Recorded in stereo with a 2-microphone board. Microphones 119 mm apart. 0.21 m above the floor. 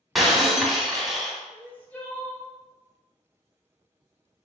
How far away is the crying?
About 1.1 m.